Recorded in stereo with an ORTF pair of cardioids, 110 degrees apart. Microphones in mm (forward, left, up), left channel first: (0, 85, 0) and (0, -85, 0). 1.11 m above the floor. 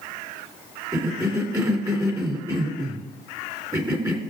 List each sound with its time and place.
0.9 s a cough: 20° right, 3 m